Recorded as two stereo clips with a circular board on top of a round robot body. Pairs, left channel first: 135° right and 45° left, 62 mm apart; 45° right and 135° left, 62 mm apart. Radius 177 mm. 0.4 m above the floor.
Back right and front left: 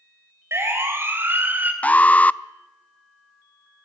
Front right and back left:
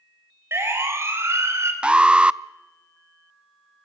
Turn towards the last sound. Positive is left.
turn(degrees=-170)